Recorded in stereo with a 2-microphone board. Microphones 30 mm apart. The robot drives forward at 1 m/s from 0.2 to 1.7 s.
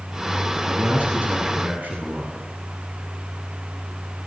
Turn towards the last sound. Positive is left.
turn(degrees=-85)